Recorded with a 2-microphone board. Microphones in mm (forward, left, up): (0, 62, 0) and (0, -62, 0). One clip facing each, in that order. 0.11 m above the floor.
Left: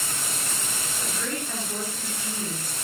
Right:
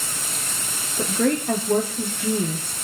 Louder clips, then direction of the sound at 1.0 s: Right 13 dB; 65° right (ahead or behind).